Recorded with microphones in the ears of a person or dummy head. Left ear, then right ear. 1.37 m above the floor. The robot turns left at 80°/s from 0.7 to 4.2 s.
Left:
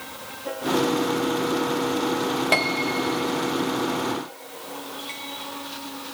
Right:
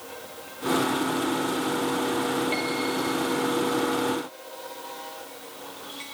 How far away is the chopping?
I don't hear chopping.